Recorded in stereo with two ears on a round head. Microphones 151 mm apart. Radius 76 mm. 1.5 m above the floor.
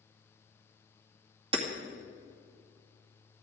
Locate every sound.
1.5 s hammering: 35° right (ahead or behind), 2 m